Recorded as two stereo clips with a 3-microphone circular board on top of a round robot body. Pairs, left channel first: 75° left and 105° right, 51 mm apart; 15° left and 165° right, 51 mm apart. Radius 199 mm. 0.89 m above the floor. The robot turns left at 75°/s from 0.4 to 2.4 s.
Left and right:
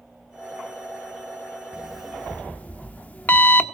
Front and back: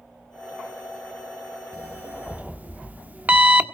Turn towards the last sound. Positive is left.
turn(degrees=130)